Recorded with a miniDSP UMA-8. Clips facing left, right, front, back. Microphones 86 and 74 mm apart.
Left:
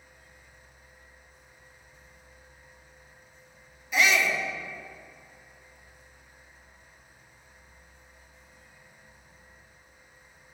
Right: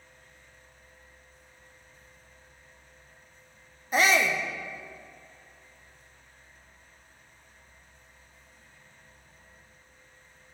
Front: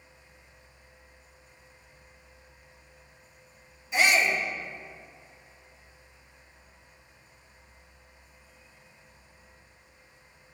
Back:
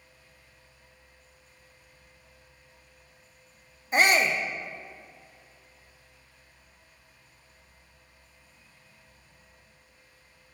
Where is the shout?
140° right, 1.0 m.